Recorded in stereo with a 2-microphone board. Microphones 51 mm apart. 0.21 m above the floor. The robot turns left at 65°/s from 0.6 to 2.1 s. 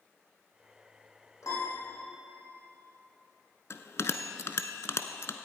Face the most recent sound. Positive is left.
turn(degrees=65)  # may be behind; listen again after turning